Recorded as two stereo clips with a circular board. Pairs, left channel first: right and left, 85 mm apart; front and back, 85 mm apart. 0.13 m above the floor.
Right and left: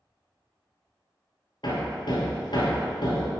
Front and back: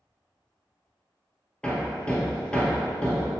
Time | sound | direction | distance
1.6 | hammering | 75° right | 1.4 m